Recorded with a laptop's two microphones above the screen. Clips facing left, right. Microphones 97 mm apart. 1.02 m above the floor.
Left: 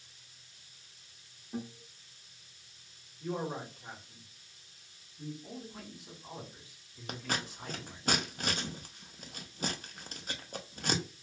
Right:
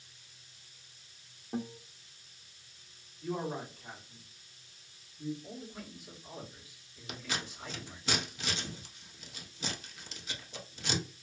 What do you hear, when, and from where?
1.5 s a guitar: 50° right (ahead or behind), 0.6 m
3.2 s a man speaking: 55° left (ahead or behind), 1.6 m
5.4 s a man speaking: 45° left (ahead or behind), 1.7 m
7.1 s scissors: 50° left (ahead or behind), 0.6 m